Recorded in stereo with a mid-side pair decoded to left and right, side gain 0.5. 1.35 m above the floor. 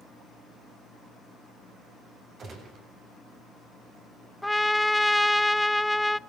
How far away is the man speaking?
I don't hear a man speaking.